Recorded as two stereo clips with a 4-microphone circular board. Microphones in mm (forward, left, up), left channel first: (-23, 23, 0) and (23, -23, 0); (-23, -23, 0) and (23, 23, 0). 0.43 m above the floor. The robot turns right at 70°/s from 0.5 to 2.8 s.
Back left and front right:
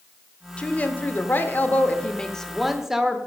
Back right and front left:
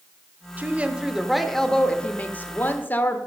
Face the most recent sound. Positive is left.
turn(degrees=-125)